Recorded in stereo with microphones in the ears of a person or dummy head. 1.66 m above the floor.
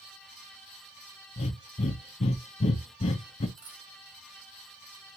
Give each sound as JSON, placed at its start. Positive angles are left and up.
{"t": 1.4, "sound": "breathing", "side_deg": 30, "distance_m": 0.7}
{"t": 3.6, "sound": "a dropped coin", "side_deg": -75, "distance_m": 3.5}